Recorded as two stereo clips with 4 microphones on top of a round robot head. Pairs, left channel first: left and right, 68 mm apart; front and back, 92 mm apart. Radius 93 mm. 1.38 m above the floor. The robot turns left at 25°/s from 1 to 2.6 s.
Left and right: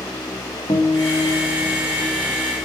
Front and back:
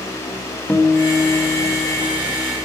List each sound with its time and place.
0.7 s a guitar: 80° left, 1.2 m; by 2.3 s 45° left, 1.2 m